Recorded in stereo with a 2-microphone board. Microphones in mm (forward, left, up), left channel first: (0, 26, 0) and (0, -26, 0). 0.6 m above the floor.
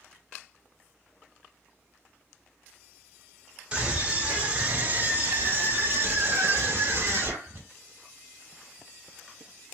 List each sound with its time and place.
3.7 s a scream: 20° right (ahead or behind), 1.8 m; by 7.6 s 55° right (ahead or behind), 1.4 m